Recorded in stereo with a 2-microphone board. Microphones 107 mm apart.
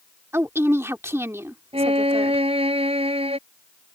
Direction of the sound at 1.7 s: 70° right (ahead or behind).